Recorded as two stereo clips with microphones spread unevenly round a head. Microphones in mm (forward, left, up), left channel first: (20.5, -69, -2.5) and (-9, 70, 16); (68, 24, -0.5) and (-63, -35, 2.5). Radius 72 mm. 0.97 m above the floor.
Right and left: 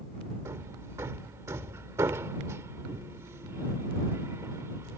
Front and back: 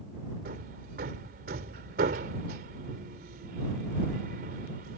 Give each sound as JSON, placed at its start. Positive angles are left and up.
{"t": 0.5, "sound": "hammering", "azimuth_deg": 175}